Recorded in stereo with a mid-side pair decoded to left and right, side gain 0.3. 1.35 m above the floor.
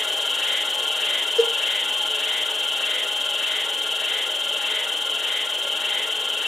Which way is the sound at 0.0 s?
35° left.